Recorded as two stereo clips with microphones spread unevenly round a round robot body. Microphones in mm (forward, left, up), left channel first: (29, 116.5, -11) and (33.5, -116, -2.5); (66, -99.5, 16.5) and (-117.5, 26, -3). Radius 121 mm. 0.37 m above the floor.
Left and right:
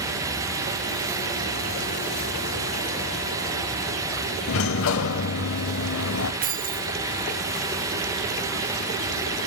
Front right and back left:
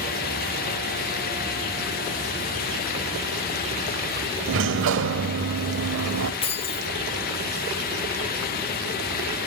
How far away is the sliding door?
About 0.6 m.